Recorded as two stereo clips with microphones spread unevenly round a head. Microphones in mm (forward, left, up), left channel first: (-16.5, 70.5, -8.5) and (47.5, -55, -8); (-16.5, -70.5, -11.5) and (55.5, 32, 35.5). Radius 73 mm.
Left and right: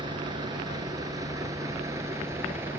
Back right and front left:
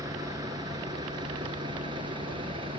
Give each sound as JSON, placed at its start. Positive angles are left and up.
{"t": 0.0, "sound": "a vehicle", "azimuth_deg": -5}